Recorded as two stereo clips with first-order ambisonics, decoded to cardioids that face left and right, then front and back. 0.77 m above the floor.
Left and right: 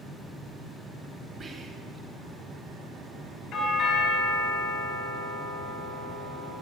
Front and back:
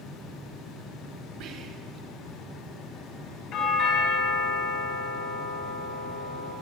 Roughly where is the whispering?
Behind right.